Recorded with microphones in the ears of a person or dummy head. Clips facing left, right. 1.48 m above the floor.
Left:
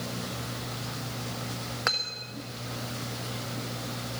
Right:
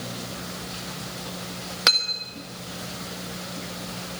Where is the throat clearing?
I don't hear throat clearing.